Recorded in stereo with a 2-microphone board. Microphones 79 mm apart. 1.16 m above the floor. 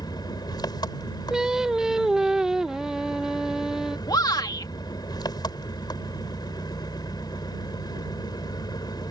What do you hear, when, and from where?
0.0 s an engine running: 60° left (ahead or behind)
1.3 s singing: 10° right (ahead or behind)
4.1 s a shout: 55° left (ahead or behind)